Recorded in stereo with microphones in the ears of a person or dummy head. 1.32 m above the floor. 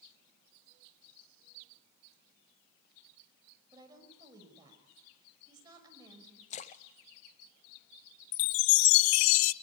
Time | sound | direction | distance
3.7 | a woman speaking | 25° right (ahead or behind) | 5.5 m
6.5 | a splash | 35° left (ahead or behind) | 0.9 m
8.3 | a chime | 75° left (ahead or behind) | 0.6 m